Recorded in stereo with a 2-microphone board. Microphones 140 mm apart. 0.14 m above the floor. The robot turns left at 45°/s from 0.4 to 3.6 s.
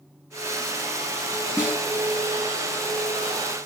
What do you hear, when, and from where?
1.6 s a snare drum: 5° right (ahead or behind), 2 m; by 1.8 s 15° right (ahead or behind), 2 m